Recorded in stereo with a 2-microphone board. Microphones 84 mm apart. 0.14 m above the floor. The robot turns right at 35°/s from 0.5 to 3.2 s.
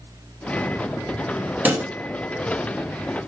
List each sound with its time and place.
1.6 s a pop: 20° right (ahead or behind), 1.0 m; by 1.9 s 25° right (ahead or behind), 1.0 m